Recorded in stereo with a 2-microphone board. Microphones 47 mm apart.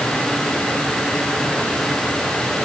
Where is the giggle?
I don't hear a giggle.